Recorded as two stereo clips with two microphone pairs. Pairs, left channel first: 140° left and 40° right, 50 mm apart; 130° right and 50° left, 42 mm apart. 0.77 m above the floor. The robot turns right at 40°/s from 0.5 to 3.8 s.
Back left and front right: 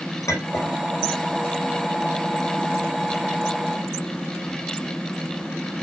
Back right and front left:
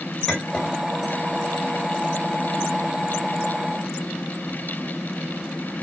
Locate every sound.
0.3 s a clink: 140° left, 3 m; by 0.7 s 150° left, 3 m